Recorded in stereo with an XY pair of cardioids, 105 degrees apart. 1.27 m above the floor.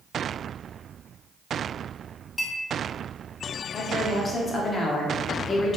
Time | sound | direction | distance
2.4 | a clink | 30° left | 1.2 m
3.7 | a woman speaking | 35° left | 0.7 m